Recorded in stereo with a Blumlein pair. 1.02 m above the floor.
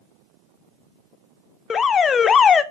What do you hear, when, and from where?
1.7 s an alarm: 20° left, 0.6 m